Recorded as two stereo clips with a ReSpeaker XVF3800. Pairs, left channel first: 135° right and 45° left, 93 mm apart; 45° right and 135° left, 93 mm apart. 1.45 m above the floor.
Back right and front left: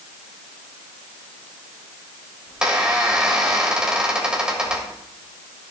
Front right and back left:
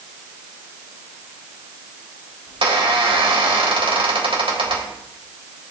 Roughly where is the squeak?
Behind left.